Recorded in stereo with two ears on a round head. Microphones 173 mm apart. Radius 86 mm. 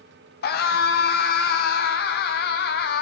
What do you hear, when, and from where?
0.4 s a scream: 55° left (ahead or behind), 3.5 m